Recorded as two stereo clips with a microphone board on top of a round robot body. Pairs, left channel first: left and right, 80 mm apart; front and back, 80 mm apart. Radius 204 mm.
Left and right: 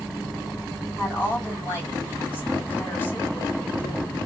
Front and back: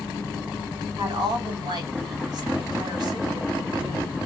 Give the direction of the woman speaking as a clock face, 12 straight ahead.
7 o'clock.